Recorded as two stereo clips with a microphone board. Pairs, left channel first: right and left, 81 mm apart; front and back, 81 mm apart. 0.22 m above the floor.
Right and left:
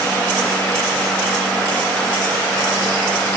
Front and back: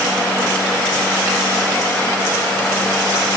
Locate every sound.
Only background noise.